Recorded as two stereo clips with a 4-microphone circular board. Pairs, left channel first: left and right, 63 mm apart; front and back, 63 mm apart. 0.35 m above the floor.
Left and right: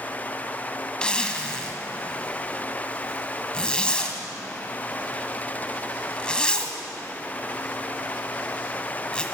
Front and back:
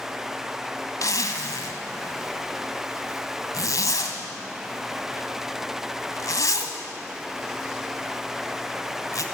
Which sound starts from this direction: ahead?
A zipper, at 1.0 s.